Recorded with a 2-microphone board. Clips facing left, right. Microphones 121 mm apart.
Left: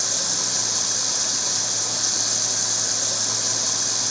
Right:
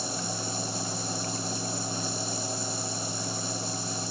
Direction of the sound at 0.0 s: 85° left.